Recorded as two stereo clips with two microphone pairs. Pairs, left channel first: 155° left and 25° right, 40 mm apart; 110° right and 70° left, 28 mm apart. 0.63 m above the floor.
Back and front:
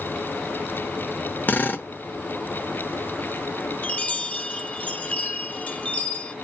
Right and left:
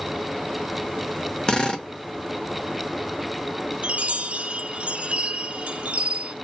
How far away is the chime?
About 0.6 m.